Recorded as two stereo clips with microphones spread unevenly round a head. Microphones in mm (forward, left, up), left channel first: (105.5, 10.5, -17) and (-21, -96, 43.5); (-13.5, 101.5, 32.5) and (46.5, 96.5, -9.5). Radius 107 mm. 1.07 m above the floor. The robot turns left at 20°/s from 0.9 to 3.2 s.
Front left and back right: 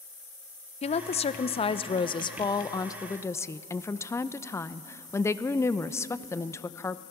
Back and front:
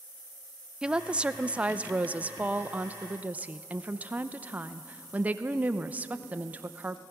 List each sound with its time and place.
0.8 s a woman speaking: 30° left, 0.7 m; by 7.0 s 15° right, 0.7 m